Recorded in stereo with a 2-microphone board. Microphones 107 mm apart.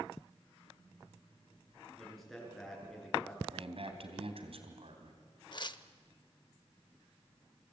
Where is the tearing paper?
45° left (ahead or behind), 0.7 m.